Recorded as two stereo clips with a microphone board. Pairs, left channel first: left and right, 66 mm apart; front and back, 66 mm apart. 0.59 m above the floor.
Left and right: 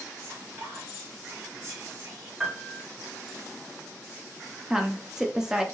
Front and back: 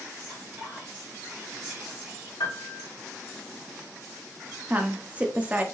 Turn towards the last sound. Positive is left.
turn(degrees=-155)